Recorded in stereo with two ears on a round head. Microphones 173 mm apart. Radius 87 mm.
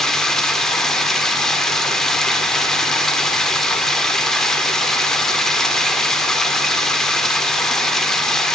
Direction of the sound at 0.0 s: Centre (ahead or behind).